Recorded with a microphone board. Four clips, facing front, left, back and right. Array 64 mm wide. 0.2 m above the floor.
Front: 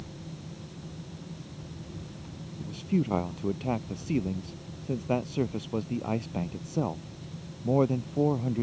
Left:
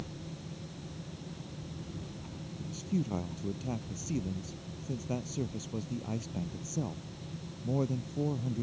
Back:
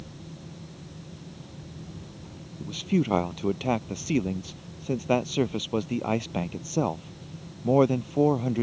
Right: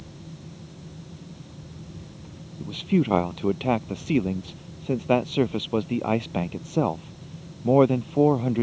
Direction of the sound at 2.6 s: 110° right.